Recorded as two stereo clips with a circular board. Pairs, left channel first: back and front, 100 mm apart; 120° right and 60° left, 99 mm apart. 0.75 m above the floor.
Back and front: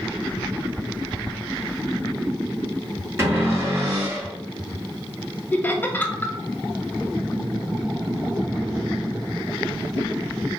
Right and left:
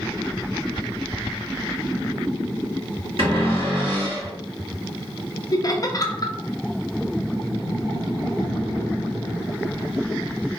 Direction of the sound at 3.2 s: 60° left.